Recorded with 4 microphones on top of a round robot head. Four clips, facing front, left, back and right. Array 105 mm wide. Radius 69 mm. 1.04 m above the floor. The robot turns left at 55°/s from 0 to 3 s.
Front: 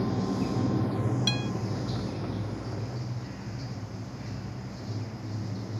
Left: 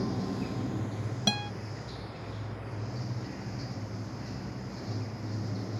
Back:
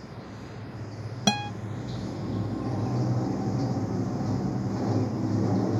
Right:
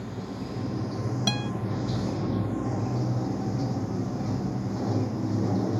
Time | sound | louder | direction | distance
0.0 | running water | left 2 dB, front 13 dB | 25° left | ?
1.3 | a guitar | even, back 5 dB | straight behind | ?